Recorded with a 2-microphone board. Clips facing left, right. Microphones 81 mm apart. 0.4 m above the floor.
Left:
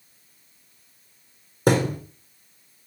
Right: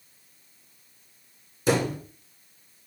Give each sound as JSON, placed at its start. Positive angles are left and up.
{"t": 1.7, "sound": "a thud", "side_deg": 55, "distance_m": 2.5}